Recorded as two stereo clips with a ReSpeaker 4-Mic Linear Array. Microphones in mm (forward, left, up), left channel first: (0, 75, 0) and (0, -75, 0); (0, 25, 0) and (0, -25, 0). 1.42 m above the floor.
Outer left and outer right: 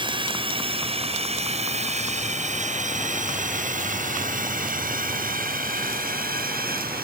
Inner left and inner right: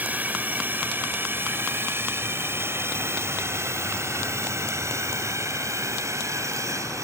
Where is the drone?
35° right (ahead or behind); by 7.0 s 75° right (ahead or behind).